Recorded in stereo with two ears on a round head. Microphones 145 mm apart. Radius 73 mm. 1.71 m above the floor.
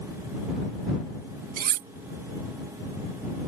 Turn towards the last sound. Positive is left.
turn(degrees=-55)  # may be behind; listen again after turning